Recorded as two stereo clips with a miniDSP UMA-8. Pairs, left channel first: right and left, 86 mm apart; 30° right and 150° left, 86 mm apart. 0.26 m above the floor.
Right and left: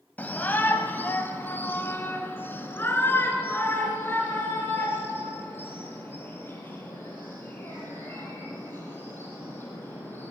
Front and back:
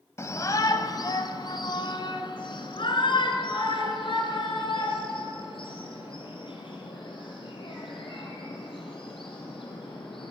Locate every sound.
0.2 s a shout: 35° right, 1.0 m; by 10.3 s 25° right, 7.5 m